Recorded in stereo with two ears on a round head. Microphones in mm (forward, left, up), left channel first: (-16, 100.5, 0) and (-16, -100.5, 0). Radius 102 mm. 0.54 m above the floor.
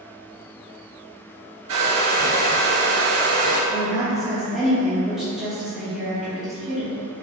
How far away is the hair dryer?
About 1.6 m.